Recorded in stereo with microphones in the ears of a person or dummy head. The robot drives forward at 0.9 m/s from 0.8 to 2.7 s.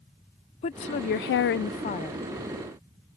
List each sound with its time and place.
0.6 s a woman speaking: 35° left (ahead or behind); by 2.3 s 25° left (ahead or behind)